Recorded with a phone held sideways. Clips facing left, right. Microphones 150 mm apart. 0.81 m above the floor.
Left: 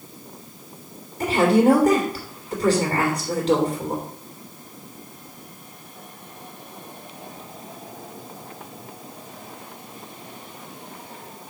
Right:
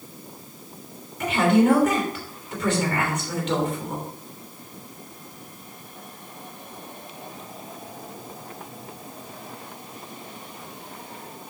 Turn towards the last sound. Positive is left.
turn(degrees=35)  # may be behind; listen again after turning